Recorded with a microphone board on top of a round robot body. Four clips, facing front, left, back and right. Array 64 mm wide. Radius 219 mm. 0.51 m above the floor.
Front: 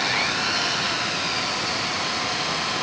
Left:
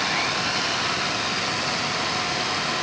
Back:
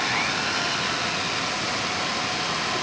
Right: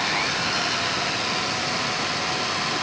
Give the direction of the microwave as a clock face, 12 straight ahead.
I don't hear a microwave.